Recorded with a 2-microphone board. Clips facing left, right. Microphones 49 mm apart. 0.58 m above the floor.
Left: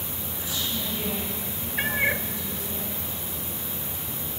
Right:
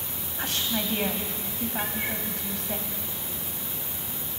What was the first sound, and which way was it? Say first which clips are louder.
A woman speaking: right 3 dB; 60° right (ahead or behind).